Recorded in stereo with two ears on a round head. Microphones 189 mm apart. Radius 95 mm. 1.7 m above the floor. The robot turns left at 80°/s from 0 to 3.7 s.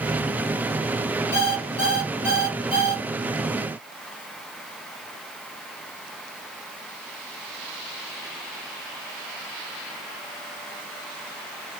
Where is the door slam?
No door slam in this recording.